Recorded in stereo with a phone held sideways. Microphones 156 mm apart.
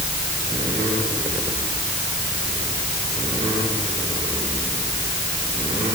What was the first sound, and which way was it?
Only background noise.